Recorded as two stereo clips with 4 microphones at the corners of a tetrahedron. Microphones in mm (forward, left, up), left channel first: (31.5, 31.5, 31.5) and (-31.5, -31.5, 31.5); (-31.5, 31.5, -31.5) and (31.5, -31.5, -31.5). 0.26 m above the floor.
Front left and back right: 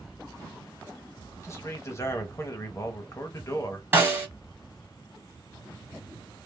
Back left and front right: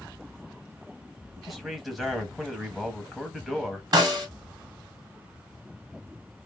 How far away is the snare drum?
About 1.9 m.